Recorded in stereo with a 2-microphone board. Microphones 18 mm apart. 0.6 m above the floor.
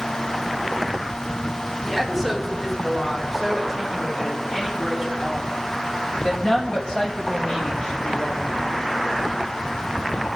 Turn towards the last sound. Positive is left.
turn(degrees=65)  # may be behind; listen again after turning